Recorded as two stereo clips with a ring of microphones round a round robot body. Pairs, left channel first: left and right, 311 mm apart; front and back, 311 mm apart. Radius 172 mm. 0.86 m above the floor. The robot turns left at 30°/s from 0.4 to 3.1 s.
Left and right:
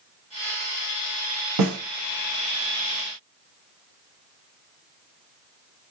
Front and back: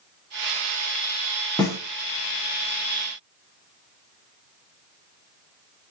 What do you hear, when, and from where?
1.6 s a snare drum: 75° right, 1.7 m; by 1.8 s 85° right, 1.7 m